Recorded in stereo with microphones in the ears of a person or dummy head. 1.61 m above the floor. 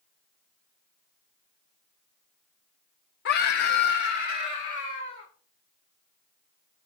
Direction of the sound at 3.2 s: 60° left (ahead or behind).